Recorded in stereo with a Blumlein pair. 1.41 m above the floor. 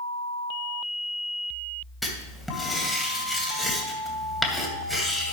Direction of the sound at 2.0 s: Straight ahead.